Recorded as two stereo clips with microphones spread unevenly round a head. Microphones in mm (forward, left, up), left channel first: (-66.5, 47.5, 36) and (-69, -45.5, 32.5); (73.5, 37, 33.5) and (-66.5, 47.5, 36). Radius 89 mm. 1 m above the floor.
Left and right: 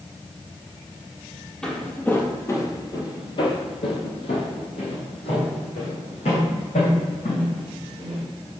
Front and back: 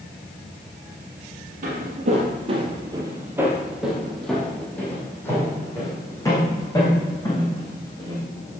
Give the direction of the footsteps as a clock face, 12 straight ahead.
7 o'clock.